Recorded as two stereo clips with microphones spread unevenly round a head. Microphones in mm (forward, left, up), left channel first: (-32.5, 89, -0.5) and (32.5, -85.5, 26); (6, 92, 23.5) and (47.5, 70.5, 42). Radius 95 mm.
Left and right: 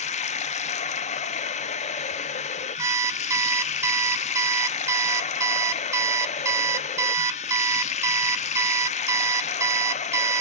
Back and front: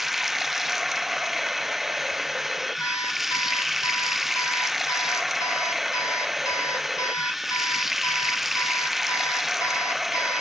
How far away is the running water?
About 0.8 m.